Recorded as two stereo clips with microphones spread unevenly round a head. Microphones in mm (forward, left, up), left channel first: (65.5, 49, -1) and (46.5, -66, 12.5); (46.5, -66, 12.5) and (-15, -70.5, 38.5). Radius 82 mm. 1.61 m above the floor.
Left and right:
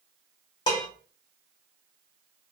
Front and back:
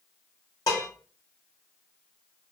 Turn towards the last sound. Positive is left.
turn(degrees=55)